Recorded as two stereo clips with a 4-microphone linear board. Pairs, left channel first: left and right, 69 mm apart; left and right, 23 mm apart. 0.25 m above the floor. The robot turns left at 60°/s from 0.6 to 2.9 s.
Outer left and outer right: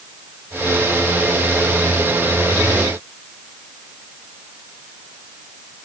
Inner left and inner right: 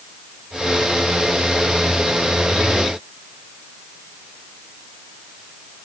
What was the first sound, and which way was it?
Only background noise.